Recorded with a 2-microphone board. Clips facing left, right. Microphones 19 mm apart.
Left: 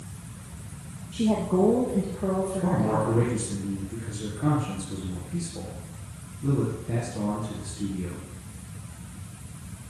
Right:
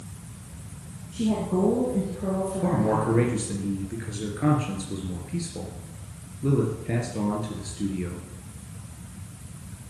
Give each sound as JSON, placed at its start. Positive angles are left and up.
{"t": 1.1, "sound": "a woman speaking", "side_deg": 25, "distance_m": 3.5}
{"t": 2.6, "sound": "a man speaking", "side_deg": -45, "distance_m": 2.5}